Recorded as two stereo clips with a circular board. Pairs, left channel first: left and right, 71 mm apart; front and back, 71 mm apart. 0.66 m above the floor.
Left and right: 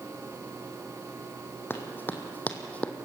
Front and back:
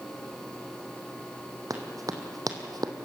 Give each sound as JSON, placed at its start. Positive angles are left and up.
{"t": 1.7, "sound": "running footsteps", "azimuth_deg": 145, "distance_m": 2.0}